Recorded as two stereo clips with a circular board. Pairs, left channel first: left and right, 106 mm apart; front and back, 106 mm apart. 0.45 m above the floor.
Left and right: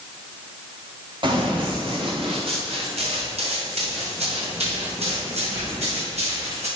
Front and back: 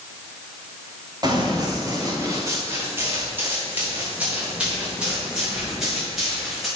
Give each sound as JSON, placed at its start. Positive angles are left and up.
{"t": 1.2, "sound": "running footsteps", "azimuth_deg": -130, "distance_m": 6.5}